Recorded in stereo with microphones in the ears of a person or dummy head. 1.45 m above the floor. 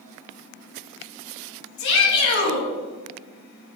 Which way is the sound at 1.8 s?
75° left (ahead or behind).